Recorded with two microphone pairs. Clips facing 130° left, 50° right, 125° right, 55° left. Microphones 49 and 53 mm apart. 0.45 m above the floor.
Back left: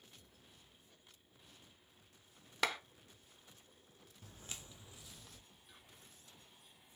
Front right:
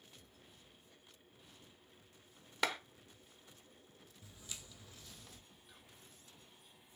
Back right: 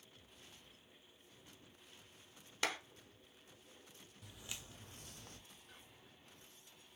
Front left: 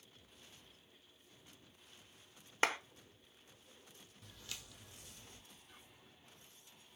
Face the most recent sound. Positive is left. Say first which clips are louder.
# even, back right 1 dB
turn(degrees=-135)